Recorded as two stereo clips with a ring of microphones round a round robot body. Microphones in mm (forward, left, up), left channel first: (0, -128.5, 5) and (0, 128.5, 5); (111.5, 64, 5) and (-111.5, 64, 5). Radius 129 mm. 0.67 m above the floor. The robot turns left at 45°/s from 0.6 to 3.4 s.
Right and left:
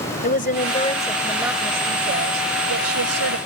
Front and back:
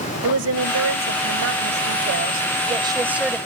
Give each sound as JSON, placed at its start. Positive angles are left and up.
{"t": 0.2, "sound": "a woman speaking", "azimuth_deg": -150}